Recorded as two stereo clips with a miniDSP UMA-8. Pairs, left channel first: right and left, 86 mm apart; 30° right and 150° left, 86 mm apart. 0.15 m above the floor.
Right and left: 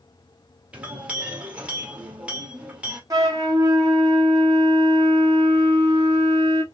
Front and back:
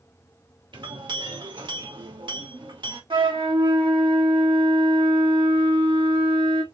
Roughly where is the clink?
Behind.